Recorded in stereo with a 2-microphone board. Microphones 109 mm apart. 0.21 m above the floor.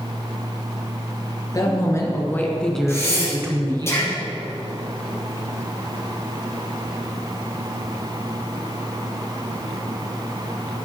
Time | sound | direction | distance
1.5 | a woman speaking | 35° left (ahead or behind) | 3 m
2.9 | breathing | 25° left (ahead or behind) | 4 m